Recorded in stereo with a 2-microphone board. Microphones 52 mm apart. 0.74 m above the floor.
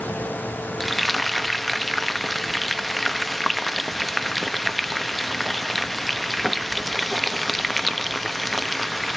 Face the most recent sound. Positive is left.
turn(degrees=0)  # may be behind; listen again after turning